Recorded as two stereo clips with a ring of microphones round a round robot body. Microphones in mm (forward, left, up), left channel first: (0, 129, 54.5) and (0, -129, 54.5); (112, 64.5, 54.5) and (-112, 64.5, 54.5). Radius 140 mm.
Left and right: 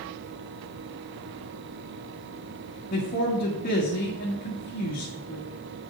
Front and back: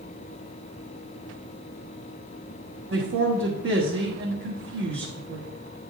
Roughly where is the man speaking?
Behind left.